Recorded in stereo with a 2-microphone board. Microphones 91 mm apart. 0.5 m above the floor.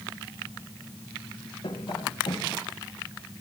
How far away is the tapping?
About 2 m.